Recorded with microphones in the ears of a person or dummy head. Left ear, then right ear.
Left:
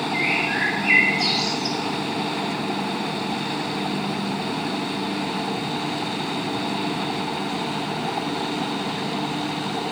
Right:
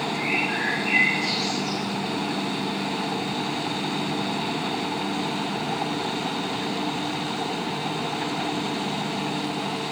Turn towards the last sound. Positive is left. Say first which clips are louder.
# left 4 dB
turn(degrees=70)  # may be behind; listen again after turning